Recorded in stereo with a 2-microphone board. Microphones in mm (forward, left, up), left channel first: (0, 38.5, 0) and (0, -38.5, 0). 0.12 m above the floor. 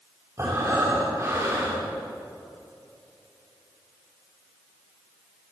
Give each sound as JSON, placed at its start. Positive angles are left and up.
{"t": 0.4, "sound": "breathing", "side_deg": -35, "distance_m": 8.0}